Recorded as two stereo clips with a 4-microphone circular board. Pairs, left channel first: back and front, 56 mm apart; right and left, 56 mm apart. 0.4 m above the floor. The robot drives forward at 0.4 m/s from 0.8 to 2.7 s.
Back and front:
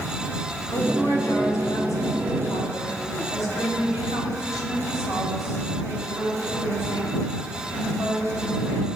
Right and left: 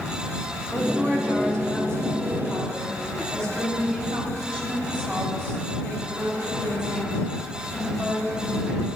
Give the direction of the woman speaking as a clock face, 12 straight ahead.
5 o'clock.